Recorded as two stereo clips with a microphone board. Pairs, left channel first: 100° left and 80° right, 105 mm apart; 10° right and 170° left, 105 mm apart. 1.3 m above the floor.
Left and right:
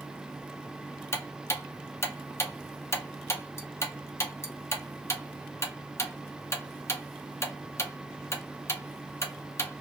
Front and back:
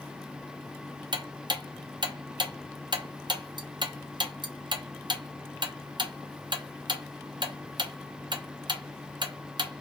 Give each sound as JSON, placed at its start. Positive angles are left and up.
{"t": 1.1, "sound": "ticking", "azimuth_deg": 150, "distance_m": 0.5}